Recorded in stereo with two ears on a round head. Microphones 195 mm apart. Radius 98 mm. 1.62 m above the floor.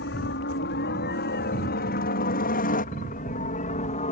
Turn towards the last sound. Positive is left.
turn(degrees=35)  # may be behind; listen again after turning